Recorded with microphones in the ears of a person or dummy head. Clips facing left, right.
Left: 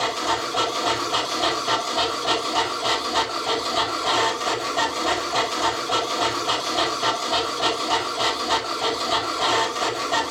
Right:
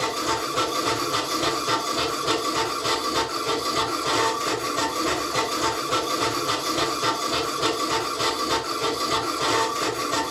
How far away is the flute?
I don't hear a flute.